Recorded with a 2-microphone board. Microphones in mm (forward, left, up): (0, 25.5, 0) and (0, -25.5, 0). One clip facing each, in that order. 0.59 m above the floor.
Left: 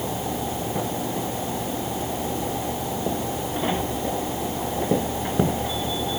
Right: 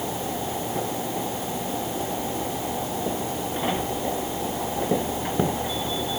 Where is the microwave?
No microwave in this recording.